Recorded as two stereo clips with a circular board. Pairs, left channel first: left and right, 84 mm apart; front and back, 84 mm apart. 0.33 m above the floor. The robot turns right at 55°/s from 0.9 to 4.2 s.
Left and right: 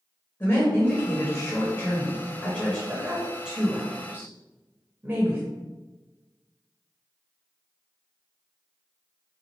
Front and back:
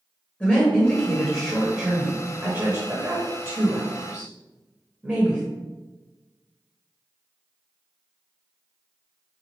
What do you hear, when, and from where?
0.4 s a woman speaking: 55° left, 0.9 m; by 5.4 s 125° right, 0.9 m